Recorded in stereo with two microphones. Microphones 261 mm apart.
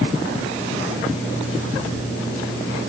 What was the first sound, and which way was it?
Only background noise.